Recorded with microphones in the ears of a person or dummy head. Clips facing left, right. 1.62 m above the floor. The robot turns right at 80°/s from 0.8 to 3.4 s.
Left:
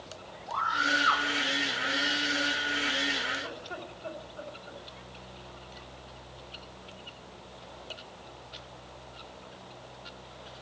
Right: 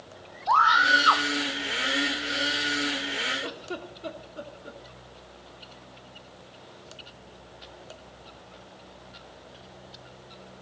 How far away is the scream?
About 1.1 m.